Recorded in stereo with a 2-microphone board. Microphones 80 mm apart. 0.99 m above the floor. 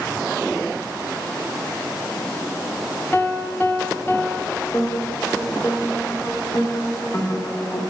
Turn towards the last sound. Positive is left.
turn(degrees=35)  # may be behind; listen again after turning